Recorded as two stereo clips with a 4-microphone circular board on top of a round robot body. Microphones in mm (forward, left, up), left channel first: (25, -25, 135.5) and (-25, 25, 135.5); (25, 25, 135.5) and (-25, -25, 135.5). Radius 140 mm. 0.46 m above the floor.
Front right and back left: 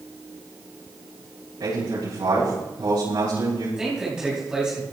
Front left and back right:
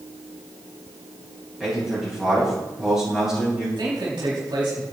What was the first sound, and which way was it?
A man speaking, 145° left.